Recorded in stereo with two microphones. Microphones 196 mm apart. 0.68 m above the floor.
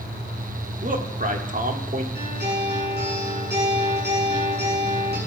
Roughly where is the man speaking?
Right.